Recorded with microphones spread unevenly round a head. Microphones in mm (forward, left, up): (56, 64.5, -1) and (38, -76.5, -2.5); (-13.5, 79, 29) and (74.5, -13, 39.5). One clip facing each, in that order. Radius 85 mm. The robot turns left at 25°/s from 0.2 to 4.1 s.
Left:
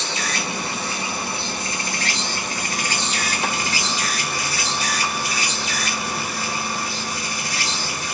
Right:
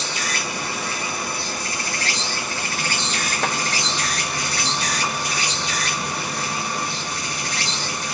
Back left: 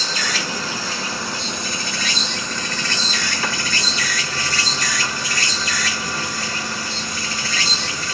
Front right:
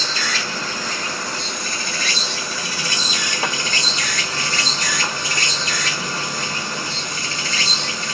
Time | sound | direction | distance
0.0 | an insect | 95° left | 1.1 m
3.4 | a clap | 105° right | 0.9 m